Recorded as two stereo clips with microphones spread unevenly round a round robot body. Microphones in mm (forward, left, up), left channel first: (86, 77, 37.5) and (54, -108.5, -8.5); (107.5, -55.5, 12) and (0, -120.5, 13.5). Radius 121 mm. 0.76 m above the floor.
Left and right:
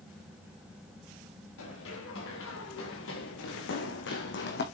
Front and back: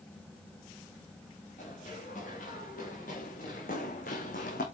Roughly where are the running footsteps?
Left.